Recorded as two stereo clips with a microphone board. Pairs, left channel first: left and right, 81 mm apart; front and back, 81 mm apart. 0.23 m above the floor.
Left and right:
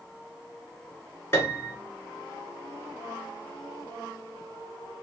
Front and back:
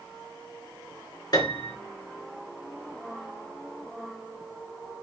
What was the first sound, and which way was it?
A piano, 30° left.